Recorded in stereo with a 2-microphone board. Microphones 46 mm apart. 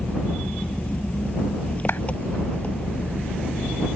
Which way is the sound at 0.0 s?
30° left (ahead or behind).